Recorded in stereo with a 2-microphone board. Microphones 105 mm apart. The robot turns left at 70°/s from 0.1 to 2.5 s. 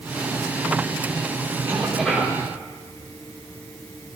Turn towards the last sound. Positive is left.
turn(degrees=145)